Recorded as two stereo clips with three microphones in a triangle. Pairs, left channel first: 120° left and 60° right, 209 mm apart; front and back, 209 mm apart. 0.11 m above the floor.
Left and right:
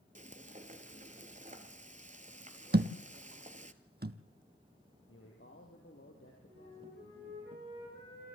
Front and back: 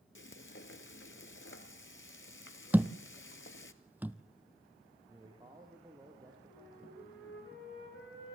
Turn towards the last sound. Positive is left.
turn(degrees=-15)